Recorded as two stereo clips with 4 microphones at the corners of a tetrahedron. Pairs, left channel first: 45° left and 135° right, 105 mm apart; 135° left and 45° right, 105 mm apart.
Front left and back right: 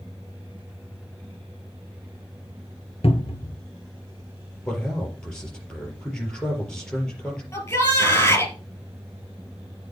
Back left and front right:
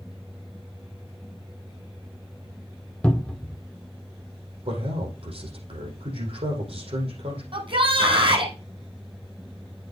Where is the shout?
20° right, 3 m.